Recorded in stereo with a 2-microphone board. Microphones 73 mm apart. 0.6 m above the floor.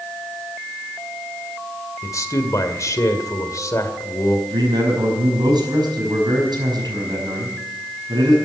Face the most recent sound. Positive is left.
turn(degrees=-75)  # may be behind; listen again after turning